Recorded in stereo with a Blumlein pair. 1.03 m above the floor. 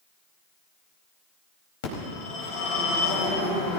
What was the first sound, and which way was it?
A phone ringing, 50° left.